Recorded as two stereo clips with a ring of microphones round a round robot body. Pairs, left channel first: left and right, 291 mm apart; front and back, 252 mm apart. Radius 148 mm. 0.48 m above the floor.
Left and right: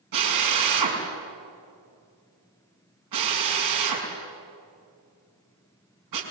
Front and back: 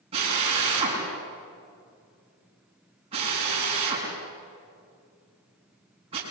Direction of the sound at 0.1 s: 110° right.